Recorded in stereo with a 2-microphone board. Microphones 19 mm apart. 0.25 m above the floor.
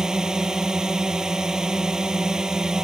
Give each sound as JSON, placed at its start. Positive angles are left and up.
{"t": 0.0, "sound": "a drone", "side_deg": -40}